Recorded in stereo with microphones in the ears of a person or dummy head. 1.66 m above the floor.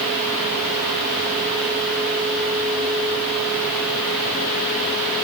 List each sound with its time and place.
Only background noise.